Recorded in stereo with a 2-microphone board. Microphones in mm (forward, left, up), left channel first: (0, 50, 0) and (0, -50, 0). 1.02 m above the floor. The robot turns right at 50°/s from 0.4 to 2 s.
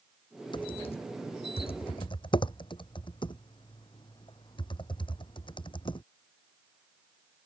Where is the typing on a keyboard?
50° left (ahead or behind); by 6.0 s 55° left (ahead or behind).